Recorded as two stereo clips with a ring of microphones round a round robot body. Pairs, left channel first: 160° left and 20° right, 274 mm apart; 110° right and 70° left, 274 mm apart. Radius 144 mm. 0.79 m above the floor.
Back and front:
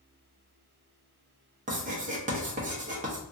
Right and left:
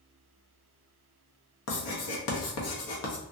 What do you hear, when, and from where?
1.7 s writing: 85° right, 0.8 m